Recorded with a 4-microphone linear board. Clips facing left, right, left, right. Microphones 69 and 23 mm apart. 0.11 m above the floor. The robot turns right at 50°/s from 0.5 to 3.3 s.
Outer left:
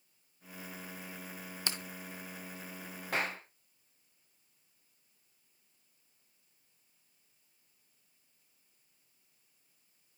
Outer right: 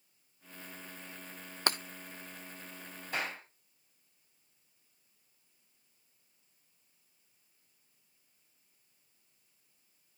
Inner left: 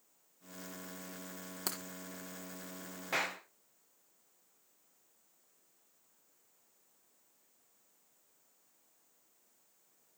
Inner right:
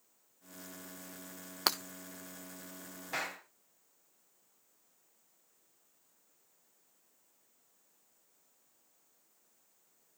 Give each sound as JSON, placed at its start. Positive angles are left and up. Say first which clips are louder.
{"t": 1.7, "sound": "breaking glass", "louder": "outer right 8 dB, inner right 10 dB", "side_deg": -55, "distance_m": 1.1}
{"t": 3.1, "sound": "a clap", "louder": "outer left 2 dB, inner left 3 dB", "side_deg": 75, "distance_m": 9.5}